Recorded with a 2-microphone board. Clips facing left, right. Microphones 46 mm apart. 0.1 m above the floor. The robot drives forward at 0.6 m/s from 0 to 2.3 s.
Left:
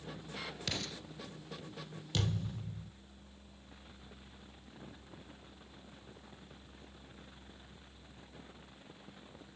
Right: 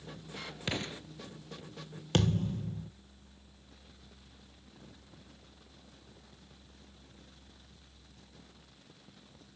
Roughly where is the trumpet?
I don't hear a trumpet.